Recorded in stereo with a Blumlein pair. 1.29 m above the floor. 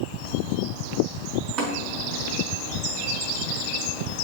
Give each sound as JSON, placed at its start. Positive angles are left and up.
{"t": 1.6, "sound": "tapping", "azimuth_deg": -35, "distance_m": 4.0}